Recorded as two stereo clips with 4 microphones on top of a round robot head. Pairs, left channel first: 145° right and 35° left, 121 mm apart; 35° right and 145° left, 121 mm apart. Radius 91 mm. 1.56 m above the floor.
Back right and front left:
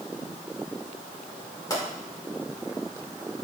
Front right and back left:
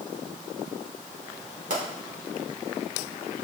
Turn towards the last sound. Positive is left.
turn(degrees=155)